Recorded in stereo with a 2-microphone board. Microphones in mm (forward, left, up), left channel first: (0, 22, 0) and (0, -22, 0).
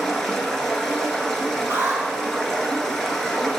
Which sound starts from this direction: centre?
Running water, at 0.0 s.